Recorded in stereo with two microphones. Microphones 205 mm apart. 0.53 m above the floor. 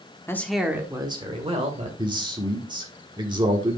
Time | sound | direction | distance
0.3 | a man speaking | 15° left (ahead or behind) | 1.0 m
2.0 | a man speaking | 20° right (ahead or behind) | 1.4 m